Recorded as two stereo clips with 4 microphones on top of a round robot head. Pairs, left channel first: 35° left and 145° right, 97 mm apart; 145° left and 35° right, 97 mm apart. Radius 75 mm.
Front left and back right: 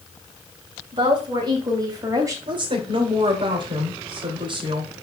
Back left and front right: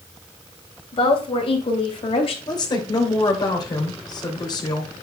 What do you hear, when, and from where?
0.9 s a woman speaking: 175° left, 3.5 m; by 2.4 s 160° left, 3 m
2.5 s a woman speaking: 175° right, 2.5 m